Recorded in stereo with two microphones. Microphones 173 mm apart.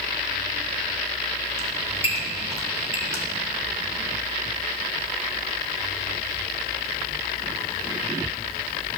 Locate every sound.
1.6 s a squeak: 15° right (ahead or behind), 1.3 m